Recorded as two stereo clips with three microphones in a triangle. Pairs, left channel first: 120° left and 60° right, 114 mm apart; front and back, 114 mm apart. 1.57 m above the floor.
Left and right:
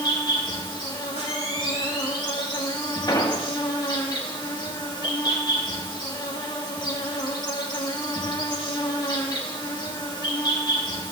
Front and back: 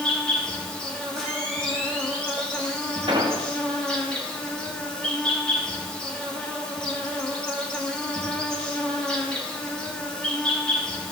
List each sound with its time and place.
0.0 s an insect: 80° left, 1.5 m
1.2 s a camera shutter: 90° right, 6 m
3.1 s an explosion: 160° left, 1.3 m